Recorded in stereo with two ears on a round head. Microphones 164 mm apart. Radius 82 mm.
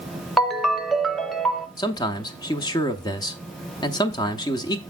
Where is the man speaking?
20° left (ahead or behind), 0.7 m.